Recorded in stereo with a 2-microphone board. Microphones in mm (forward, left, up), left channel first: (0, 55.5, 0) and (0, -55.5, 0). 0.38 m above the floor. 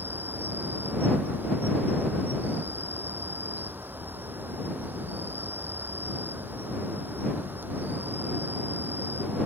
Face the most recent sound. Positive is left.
turn(degrees=-15)  # may be behind; listen again after turning